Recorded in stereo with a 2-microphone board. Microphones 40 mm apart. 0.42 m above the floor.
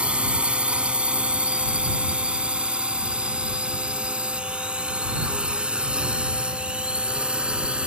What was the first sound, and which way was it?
A drone, 30° right (ahead or behind).